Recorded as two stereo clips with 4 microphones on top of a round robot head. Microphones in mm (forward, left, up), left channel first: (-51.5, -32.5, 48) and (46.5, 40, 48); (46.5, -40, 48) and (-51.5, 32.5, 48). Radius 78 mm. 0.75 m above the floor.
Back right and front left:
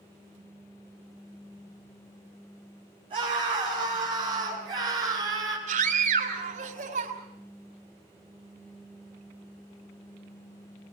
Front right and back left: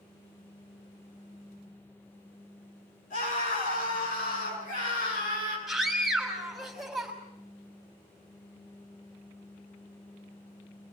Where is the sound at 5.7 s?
55° left, 6 m.